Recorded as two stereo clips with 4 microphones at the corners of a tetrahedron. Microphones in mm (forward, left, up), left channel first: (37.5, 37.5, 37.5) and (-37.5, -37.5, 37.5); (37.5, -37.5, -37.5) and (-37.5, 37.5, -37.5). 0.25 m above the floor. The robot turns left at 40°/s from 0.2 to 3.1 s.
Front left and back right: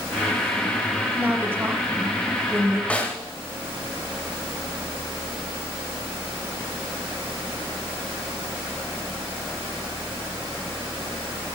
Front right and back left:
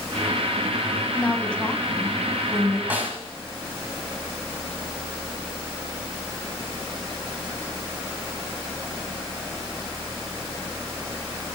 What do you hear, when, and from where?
1.1 s a woman speaking: 85° right, 0.9 m; by 2.8 s 150° right, 0.9 m
2.9 s a snare drum: 100° left, 1.3 m; by 3.2 s 90° left, 1.3 m